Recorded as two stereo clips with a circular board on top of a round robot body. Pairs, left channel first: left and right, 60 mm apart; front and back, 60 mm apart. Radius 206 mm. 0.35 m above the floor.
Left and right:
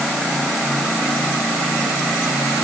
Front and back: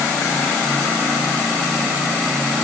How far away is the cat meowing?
No cat meowing in this recording.